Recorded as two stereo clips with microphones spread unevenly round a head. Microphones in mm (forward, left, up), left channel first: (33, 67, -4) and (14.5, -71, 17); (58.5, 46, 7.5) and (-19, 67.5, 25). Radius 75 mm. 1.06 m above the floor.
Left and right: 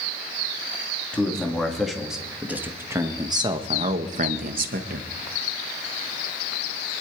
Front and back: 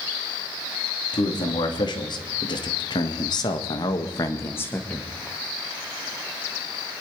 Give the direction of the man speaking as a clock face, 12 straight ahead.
12 o'clock.